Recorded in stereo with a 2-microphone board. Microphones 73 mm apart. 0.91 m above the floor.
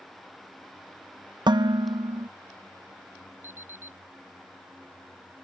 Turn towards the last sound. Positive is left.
turn(degrees=-30)  # may be behind; listen again after turning